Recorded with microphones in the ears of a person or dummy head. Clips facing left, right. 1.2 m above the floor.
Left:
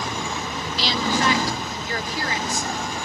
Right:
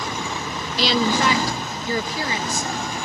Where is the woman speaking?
40° right (ahead or behind), 0.6 m; by 3.1 s 75° right (ahead or behind), 2.5 m.